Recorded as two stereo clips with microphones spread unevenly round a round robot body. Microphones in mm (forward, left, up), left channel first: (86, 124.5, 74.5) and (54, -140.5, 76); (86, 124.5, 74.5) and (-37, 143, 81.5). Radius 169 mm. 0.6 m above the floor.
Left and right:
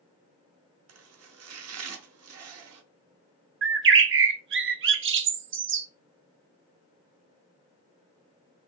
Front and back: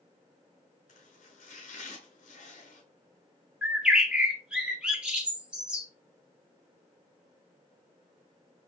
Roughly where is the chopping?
Ahead right.